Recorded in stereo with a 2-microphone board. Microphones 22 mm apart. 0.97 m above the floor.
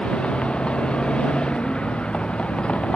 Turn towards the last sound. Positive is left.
turn(degrees=60)  # may be behind; listen again after turning